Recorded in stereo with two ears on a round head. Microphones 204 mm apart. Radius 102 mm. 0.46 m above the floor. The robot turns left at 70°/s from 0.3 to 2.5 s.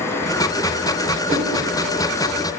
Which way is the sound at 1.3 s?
25° right (ahead or behind).